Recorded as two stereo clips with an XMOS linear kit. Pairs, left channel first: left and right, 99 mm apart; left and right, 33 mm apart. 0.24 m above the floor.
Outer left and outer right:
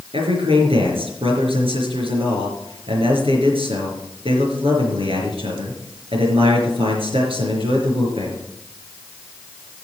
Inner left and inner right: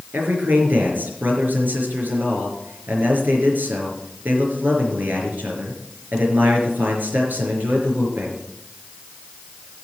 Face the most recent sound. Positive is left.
turn(degrees=-70)  # may be behind; listen again after turning